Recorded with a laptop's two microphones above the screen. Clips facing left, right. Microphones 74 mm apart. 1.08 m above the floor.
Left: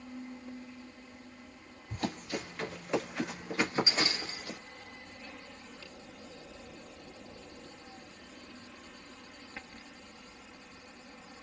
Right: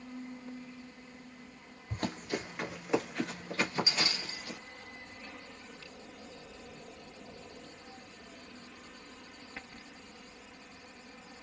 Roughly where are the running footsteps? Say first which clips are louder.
Even; right.